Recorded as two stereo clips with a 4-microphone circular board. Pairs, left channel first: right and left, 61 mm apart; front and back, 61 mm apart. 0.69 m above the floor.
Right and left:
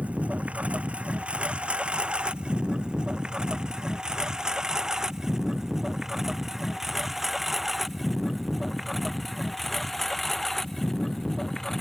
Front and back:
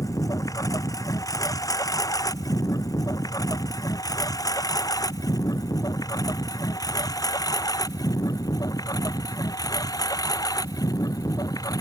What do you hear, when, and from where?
0.0 s a lawn mower: 25° left; by 11.8 s 5° right